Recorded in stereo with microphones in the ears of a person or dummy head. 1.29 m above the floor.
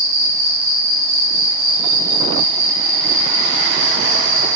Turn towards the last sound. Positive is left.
turn(degrees=-20)  # may be behind; listen again after turning